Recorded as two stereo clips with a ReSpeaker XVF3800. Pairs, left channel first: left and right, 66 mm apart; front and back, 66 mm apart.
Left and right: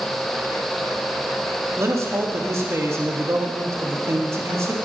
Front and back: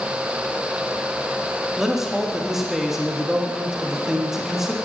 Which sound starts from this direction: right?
A man speaking, at 1.8 s.